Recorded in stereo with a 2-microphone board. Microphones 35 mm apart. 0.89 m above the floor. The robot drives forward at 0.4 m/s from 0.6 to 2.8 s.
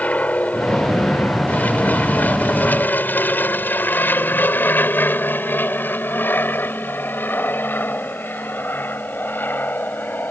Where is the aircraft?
45° left (ahead or behind); by 10.3 s 65° left (ahead or behind).